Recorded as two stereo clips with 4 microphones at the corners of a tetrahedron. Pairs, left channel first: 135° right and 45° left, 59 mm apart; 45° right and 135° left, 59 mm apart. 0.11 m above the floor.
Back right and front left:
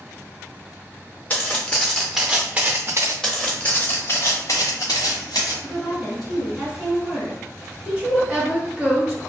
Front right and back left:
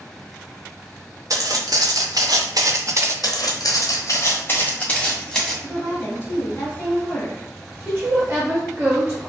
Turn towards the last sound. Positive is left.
turn(degrees=125)